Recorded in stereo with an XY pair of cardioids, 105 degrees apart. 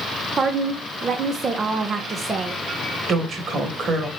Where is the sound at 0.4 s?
40° right, 0.7 m.